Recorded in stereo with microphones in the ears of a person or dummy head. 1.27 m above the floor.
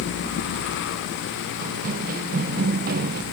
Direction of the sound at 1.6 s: 50° right (ahead or behind).